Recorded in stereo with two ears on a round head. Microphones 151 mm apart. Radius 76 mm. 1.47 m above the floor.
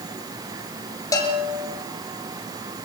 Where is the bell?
20° left (ahead or behind), 3.5 m.